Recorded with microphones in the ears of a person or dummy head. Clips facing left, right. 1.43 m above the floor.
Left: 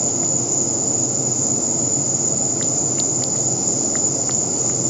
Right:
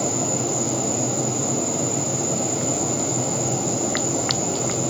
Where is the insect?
40° left (ahead or behind), 0.7 m.